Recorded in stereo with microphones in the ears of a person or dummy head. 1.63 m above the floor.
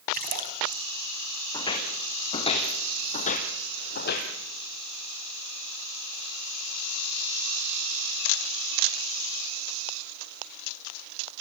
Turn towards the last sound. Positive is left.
turn(degrees=45)  # may be behind; listen again after turning